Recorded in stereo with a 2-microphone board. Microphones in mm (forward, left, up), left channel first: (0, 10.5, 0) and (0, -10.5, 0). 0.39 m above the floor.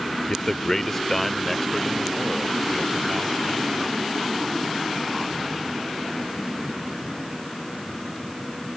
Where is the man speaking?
30° left (ahead or behind); by 5.8 s 15° right (ahead or behind).